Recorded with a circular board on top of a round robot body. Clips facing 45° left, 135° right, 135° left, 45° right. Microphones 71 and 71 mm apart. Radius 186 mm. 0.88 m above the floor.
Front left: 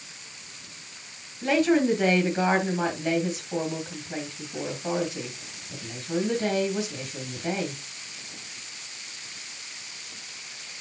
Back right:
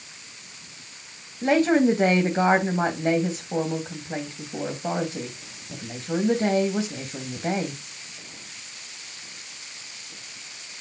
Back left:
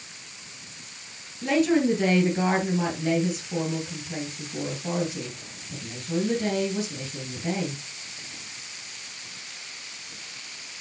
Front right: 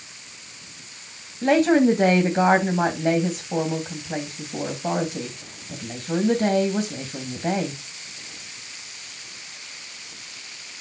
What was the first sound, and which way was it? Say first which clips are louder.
A woman speaking: back right 3 dB, front right 5 dB; 85° right.